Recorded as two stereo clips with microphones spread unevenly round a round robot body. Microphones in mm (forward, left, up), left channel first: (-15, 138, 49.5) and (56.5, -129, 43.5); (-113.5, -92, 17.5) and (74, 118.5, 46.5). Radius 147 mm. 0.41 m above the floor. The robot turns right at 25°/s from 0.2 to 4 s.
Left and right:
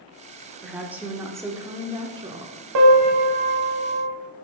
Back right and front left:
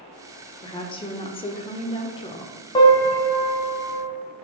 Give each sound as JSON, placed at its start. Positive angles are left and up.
{"t": 0.6, "sound": "a woman speaking", "azimuth_deg": -155, "distance_m": 1.1}
{"t": 2.8, "sound": "a piano", "azimuth_deg": -60, "distance_m": 1.4}